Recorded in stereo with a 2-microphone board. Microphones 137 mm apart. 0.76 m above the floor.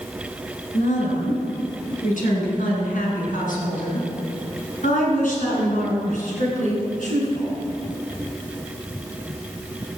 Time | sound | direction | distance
0.7 | a woman speaking | 70° left (ahead or behind) | 6.5 m